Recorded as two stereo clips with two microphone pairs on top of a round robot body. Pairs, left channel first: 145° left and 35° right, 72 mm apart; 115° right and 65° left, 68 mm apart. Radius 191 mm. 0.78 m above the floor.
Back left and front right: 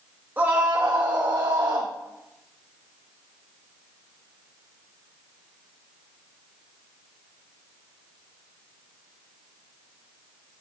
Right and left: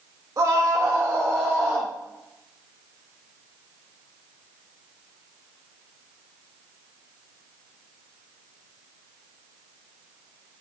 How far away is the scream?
About 1.4 m.